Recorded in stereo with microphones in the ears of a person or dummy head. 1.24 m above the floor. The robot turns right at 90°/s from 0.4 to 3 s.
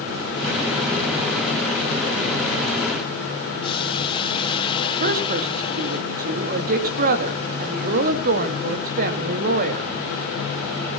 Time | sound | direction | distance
3.6 | boiling | 30° left (ahead or behind) | 1.8 m
5.0 | a woman speaking | 45° right (ahead or behind) | 2 m